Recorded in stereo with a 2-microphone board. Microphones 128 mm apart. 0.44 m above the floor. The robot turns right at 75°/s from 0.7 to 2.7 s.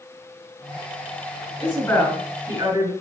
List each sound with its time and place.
1.6 s a woman speaking: 140° left, 2 m; by 2.9 s 135° right, 2 m